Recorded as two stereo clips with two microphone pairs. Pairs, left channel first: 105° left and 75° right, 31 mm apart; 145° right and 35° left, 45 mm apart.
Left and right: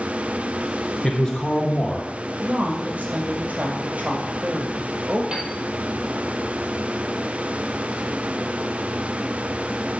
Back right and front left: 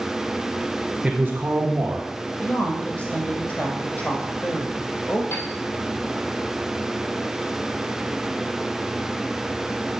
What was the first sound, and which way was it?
A man speaking, 70° left.